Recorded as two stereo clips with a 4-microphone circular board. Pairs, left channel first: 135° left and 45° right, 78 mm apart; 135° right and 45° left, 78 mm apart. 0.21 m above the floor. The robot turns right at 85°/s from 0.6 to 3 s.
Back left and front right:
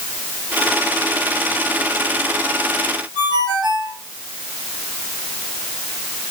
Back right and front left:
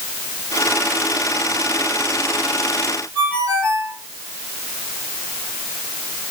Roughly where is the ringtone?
Ahead right.